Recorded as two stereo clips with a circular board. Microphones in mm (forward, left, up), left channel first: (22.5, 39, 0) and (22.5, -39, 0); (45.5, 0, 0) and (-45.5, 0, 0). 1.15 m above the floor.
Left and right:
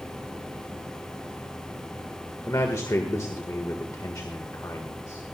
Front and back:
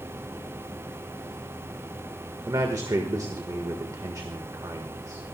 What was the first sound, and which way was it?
A man speaking, 130° left.